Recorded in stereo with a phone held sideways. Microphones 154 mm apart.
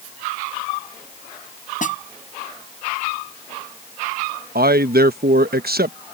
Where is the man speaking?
85° right.